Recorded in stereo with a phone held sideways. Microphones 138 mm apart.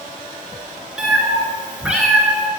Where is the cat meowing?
5° right (ahead or behind), 1.7 m.